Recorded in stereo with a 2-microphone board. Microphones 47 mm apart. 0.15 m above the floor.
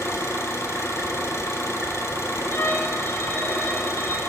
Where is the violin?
55° left (ahead or behind), 1.1 m.